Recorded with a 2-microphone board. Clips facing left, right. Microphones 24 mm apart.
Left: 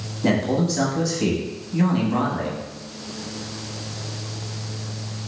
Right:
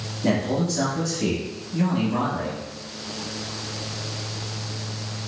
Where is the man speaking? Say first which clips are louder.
Left 2 dB; 15° left (ahead or behind), 1.0 m.